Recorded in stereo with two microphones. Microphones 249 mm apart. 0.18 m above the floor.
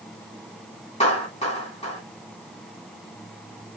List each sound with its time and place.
1.0 s a clap: 25° left (ahead or behind), 8.5 m